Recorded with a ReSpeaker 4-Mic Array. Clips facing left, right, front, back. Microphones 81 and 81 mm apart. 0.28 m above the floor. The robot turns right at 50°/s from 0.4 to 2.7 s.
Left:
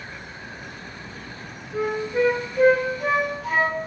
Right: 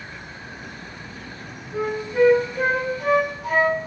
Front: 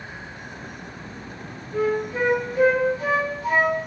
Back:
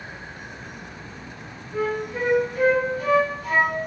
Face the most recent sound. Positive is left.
turn(degrees=-20)